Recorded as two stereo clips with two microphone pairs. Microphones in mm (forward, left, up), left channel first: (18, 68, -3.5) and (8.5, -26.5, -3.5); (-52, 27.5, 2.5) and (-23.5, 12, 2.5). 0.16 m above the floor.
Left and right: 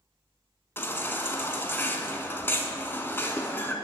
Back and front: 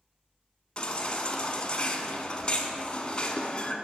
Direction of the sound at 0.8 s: 130° left.